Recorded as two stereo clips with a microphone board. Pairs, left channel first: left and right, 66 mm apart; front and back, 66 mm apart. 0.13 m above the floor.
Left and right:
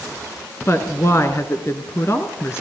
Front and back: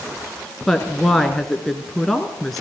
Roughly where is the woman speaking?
Left.